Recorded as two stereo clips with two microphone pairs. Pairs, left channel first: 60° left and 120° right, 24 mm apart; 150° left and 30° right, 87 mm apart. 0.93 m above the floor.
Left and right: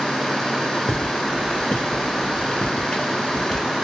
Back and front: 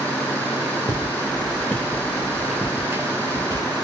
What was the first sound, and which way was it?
Footsteps, 105° left.